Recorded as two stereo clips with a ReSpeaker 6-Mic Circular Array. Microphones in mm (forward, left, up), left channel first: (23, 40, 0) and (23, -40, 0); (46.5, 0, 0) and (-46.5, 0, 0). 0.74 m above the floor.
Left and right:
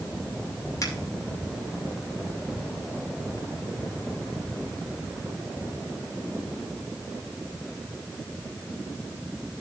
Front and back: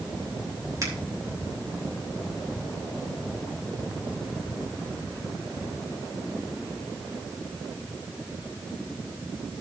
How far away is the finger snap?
About 2.5 m.